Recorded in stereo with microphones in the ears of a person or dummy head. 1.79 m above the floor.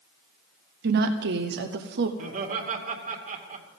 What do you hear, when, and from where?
0.8 s a woman speaking: 60° right (ahead or behind), 1.0 m
2.2 s laughter: 40° right (ahead or behind), 2.5 m